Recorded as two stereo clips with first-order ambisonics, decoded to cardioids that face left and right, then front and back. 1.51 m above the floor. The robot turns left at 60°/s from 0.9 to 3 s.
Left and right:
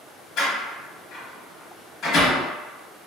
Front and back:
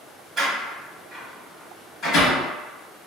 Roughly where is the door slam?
Behind left.